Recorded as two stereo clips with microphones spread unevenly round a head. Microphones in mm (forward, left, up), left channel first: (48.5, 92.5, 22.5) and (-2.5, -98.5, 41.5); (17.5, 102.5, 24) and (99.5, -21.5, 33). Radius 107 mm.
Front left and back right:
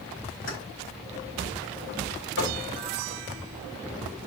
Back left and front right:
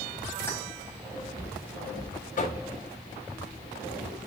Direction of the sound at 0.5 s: 45° left.